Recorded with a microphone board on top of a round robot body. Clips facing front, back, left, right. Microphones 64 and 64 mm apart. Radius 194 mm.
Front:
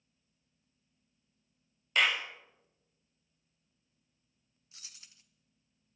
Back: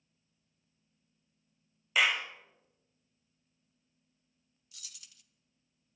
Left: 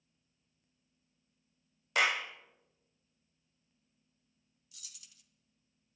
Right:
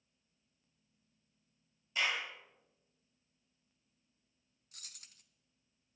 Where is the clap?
95° left, 1.9 m.